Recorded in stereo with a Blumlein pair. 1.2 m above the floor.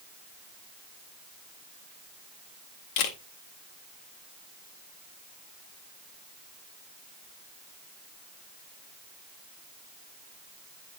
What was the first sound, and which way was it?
A camera shutter, 45° left.